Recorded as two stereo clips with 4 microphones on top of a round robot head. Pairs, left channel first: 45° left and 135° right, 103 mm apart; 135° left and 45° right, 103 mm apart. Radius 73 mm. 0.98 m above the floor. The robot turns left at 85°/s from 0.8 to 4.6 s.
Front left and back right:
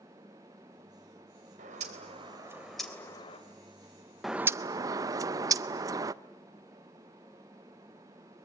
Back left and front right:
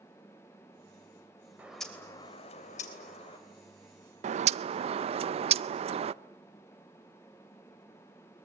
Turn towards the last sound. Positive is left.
turn(degrees=-75)